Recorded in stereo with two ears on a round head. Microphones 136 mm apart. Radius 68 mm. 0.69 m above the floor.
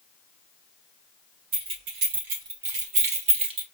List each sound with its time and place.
1.5 s keys jangling: 75° right (ahead or behind), 1.8 m; by 3.6 s 35° right (ahead or behind), 0.8 m